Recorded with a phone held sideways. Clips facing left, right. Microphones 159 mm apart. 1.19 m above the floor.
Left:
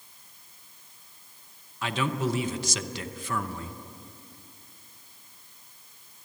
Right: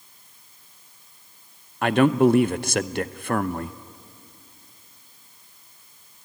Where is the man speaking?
60° right (ahead or behind), 0.7 m.